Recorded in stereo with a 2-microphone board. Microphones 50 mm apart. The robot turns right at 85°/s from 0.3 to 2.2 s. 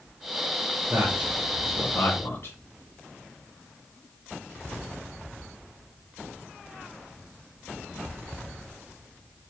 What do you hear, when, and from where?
0.9 s a man speaking: 50° right (ahead or behind), 3.5 m; by 2.6 s 60° left (ahead or behind), 3.5 m